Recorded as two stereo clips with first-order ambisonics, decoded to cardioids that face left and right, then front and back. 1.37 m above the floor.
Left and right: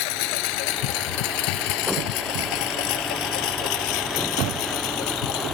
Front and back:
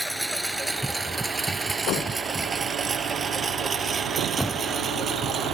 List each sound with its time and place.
0.0 s a lawn mower: 90° left; by 5.5 s 115° left